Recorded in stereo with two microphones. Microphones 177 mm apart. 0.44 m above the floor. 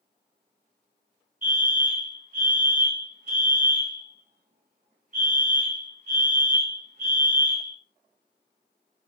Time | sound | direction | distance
1.4 | a fire alarm | 45° right (ahead or behind) | 3.5 m